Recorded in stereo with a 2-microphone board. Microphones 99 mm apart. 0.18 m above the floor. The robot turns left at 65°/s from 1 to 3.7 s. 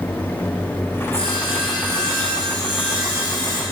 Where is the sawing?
95° left, 3.5 m; by 3.6 s 70° right, 3.5 m.